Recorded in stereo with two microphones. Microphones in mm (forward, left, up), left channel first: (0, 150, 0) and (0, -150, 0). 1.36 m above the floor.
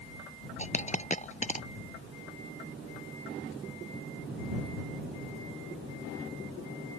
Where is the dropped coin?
25° left (ahead or behind).